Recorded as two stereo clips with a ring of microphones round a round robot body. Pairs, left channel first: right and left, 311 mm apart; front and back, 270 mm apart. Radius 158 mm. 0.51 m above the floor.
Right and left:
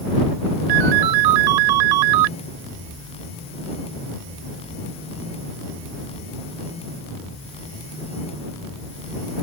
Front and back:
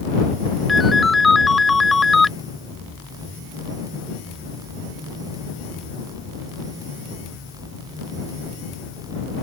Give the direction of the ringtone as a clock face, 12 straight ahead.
9 o'clock.